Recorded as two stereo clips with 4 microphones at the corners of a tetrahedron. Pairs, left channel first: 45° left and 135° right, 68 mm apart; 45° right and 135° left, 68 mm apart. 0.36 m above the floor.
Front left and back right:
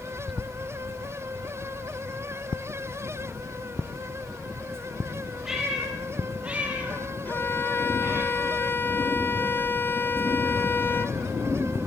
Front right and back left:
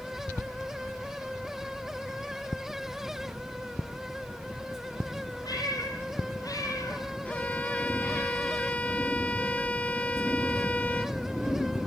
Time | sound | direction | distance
5.5 | a cat meowing | 50° right | 6.5 m
7.2 | a violin | 10° left | 0.9 m